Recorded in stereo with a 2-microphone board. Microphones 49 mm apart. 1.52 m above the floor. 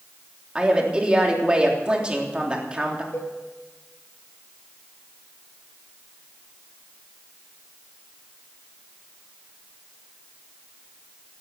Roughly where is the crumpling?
No crumpling in this recording.